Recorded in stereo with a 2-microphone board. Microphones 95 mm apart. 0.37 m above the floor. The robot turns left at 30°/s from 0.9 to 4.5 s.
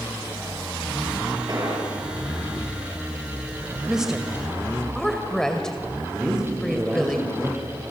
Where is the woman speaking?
10° right (ahead or behind), 1.9 m; by 7.2 s 5° left (ahead or behind), 1.9 m.